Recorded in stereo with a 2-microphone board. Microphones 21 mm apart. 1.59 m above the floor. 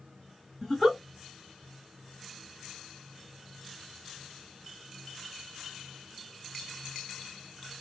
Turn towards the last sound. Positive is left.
turn(degrees=0)  # may be behind; listen again after turning